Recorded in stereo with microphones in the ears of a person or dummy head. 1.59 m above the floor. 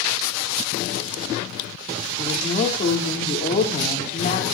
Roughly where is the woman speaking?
Left.